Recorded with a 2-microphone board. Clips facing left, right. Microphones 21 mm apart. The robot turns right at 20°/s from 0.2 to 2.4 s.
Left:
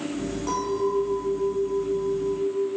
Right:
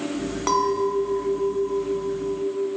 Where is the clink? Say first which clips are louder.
Right 5 dB; 105° right, 1.1 m; by 2.7 s 65° right, 1.1 m.